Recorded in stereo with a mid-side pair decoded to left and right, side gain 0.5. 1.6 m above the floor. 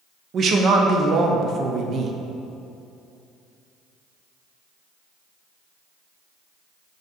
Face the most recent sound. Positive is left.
turn(degrees=-50)